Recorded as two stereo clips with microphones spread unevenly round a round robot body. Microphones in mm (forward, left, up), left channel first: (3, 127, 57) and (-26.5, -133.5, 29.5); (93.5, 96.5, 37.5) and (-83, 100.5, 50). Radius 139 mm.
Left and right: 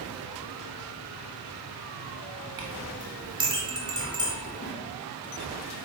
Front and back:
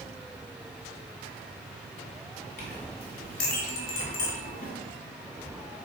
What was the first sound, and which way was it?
A clink, 30° right.